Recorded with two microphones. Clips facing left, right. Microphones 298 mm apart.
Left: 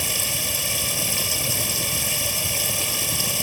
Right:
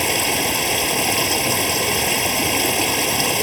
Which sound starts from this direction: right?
Running water, at 0.0 s.